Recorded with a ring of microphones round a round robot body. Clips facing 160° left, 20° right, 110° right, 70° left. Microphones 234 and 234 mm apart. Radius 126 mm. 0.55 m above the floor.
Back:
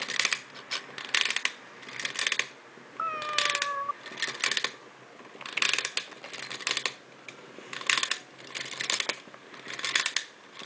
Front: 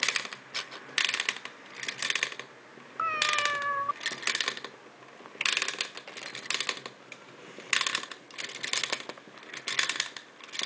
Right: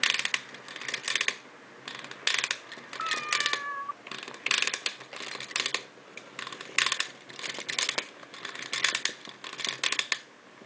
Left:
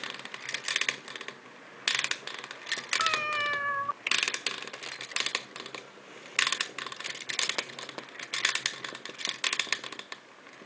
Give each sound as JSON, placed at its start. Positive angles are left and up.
{"t": 3.0, "sound": "a cat meowing", "azimuth_deg": 35}